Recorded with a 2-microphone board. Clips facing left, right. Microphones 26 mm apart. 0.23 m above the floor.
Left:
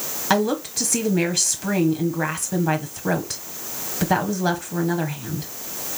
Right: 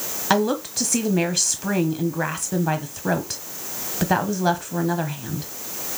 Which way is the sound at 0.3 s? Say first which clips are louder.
Even; 5° right (ahead or behind).